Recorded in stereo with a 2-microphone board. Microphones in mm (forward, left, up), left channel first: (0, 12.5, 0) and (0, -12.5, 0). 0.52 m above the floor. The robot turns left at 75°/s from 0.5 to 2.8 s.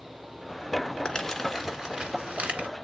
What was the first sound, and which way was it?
Crumpling, 25° left (ahead or behind).